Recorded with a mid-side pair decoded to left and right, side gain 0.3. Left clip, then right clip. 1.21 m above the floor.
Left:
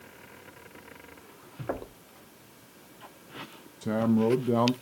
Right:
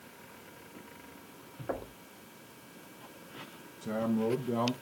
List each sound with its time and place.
1.7 s knocking: 40° left, 2 m
3.8 s a man speaking: 65° left, 0.8 m